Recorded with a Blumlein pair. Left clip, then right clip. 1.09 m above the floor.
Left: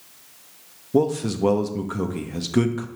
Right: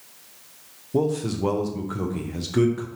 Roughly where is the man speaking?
Ahead.